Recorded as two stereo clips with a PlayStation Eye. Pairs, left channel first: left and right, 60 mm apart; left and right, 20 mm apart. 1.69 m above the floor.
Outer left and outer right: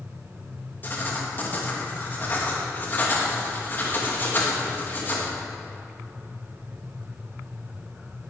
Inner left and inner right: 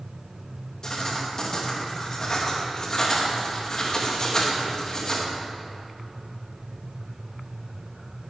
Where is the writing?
35° left (ahead or behind), 2.5 m.